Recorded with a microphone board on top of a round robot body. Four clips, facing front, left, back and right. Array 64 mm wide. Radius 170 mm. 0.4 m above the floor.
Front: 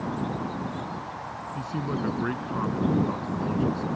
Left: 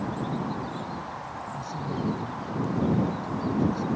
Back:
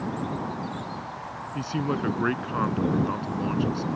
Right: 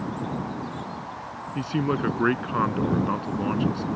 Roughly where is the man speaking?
Right.